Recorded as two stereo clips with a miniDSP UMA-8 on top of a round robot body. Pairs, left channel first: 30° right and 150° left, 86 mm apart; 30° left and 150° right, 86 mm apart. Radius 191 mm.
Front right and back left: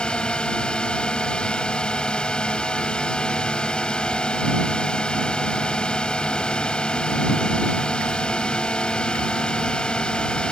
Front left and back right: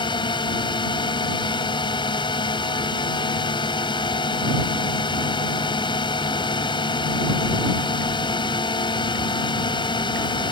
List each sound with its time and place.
0.0 s a drone: 50° left